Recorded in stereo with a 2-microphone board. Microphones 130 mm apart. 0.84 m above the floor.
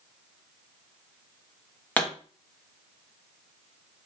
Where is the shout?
I don't hear a shout.